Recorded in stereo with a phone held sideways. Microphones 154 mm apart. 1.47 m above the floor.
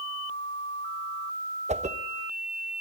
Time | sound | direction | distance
1.7 | a whoosh | 50° right (ahead or behind) | 1.0 m